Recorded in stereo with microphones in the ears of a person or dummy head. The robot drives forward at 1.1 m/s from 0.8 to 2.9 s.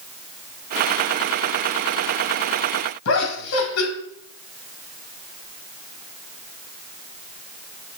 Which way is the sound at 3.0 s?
80° left.